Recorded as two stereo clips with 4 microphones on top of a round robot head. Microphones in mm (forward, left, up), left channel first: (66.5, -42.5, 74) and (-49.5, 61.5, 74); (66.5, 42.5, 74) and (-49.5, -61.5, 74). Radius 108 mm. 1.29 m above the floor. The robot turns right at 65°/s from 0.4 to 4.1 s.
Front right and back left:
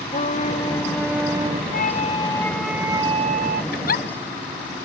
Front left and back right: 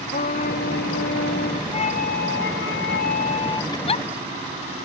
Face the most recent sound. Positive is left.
turn(degrees=0)